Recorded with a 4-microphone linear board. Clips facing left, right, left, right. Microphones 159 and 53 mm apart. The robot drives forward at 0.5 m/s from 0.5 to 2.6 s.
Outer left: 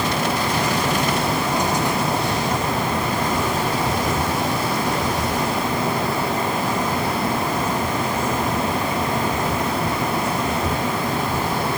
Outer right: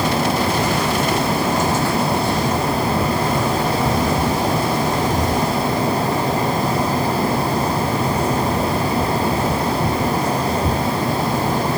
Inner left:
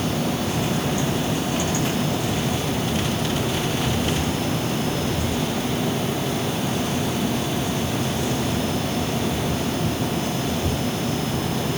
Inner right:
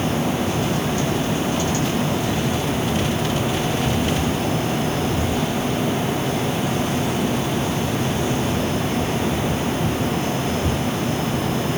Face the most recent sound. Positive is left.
No sound to turn to.